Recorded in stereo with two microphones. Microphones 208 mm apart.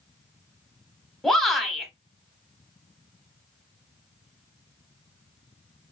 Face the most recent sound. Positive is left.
turn(degrees=0)  # may be behind; listen again after turning